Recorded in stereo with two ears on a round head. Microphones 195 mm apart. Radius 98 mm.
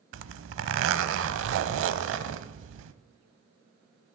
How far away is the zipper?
About 0.7 m.